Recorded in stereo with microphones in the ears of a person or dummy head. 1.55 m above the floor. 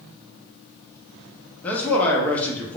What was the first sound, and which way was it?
A man speaking, 10° left (ahead or behind).